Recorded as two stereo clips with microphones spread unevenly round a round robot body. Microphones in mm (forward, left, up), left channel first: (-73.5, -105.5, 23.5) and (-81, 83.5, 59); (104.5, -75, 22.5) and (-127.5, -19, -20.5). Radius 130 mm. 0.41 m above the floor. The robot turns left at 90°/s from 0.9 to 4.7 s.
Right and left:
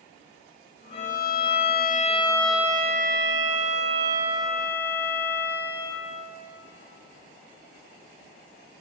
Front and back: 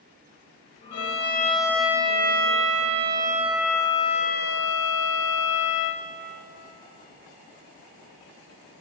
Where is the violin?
30° right, 0.9 m; by 6.0 s 10° right, 0.9 m.